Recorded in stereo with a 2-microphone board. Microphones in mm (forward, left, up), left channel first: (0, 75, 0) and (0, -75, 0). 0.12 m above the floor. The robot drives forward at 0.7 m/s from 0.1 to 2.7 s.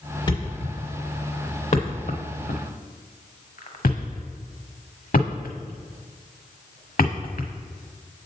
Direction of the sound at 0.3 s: 30° left (ahead or behind).